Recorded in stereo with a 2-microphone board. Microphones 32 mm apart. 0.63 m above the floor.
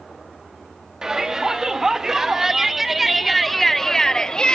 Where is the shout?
20° right (ahead or behind), 2 m; by 4.6 s 30° left (ahead or behind), 0.7 m.